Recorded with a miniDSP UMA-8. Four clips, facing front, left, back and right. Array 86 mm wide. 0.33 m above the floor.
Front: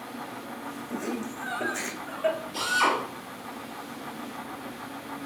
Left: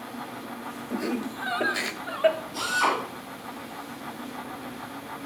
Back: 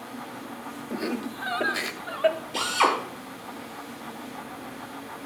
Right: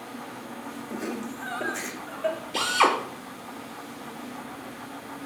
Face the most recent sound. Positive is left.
turn(degrees=-120)